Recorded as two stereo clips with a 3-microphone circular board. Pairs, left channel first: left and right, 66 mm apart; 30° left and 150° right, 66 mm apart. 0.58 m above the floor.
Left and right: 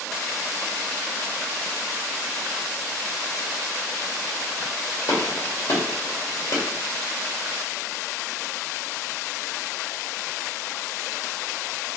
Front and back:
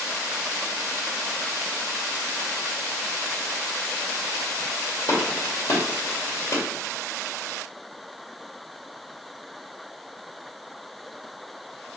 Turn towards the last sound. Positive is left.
turn(degrees=65)